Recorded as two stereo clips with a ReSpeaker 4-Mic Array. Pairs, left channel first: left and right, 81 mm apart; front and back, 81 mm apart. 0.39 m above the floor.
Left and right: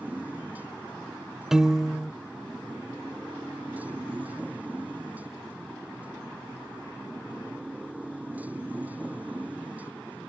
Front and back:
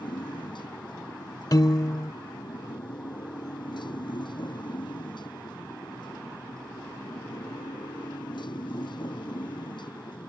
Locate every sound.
0.0 s a motorcycle: 20° right
1.5 s a piano: 10° right